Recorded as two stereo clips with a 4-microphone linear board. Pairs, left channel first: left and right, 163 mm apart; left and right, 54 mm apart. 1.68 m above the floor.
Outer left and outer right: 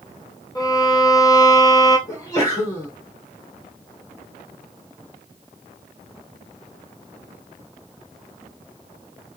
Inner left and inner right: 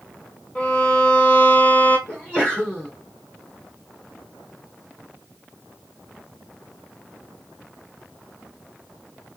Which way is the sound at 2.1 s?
25° left (ahead or behind).